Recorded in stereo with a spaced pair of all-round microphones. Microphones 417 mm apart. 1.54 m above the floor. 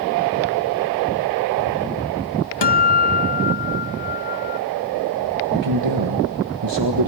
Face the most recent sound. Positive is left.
turn(degrees=-85)